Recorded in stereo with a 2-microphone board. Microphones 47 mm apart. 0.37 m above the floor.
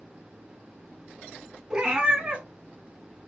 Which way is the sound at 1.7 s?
20° right (ahead or behind).